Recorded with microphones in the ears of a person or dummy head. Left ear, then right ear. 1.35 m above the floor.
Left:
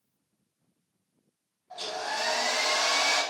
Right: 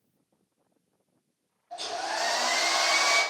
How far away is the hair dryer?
About 1.9 m.